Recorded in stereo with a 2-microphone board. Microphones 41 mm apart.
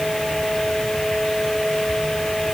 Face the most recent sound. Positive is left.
No sound to turn to.